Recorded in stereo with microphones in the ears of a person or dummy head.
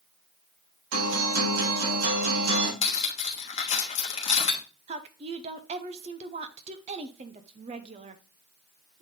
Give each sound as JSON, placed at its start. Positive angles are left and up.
{"t": 0.9, "sound": "a guitar", "side_deg": -90, "distance_m": 4.0}
{"t": 2.8, "sound": "cutlery clinking", "side_deg": 45, "distance_m": 1.0}
{"t": 4.9, "sound": "a woman speaking", "side_deg": -20, "distance_m": 0.5}